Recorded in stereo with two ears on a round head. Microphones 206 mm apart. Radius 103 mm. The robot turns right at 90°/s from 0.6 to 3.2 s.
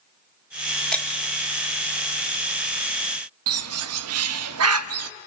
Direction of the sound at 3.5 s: 75° right (ahead or behind).